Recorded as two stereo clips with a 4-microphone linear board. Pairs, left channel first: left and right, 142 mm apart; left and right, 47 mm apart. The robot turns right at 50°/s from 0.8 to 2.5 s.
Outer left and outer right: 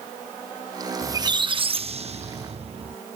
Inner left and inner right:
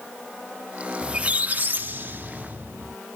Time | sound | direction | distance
1.0 | a squeak | 150° right | ?